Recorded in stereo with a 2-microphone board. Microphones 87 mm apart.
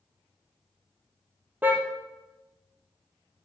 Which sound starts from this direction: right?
A car horn, at 1.6 s.